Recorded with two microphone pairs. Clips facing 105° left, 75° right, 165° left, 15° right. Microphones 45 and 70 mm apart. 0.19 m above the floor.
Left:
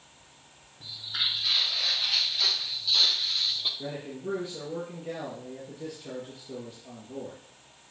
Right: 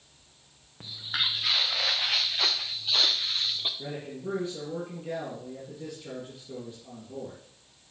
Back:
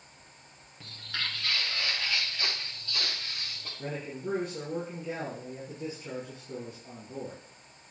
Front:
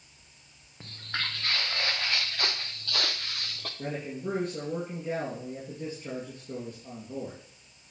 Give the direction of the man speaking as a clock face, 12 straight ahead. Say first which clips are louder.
Left 1 dB, front 2 dB; 12 o'clock.